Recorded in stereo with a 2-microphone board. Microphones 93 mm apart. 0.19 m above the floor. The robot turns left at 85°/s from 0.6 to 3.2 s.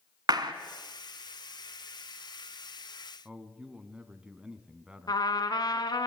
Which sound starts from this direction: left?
A trumpet, at 5.1 s.